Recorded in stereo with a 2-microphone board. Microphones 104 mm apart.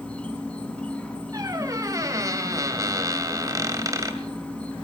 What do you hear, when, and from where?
0.0 s an insect: 10° left (ahead or behind), 5.5 m
1.3 s a squeak: 35° right (ahead or behind), 2 m